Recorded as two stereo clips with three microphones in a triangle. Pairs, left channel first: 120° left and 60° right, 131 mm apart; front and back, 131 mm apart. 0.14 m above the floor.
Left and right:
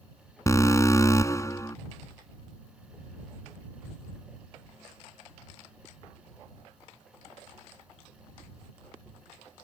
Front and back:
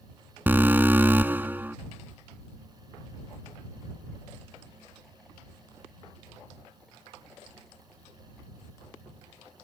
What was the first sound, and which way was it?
An alarm, 130° left.